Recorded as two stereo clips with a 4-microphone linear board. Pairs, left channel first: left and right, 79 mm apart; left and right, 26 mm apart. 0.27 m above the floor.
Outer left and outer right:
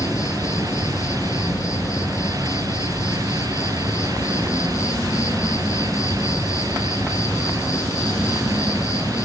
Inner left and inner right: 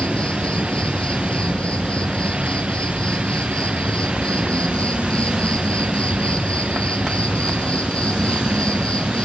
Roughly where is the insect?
Left.